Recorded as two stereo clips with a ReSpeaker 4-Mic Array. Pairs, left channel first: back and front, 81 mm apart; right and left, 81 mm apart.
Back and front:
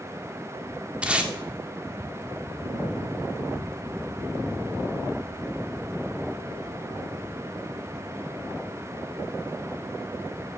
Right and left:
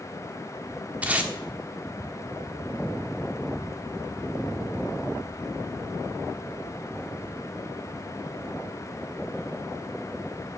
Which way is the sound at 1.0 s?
55° left.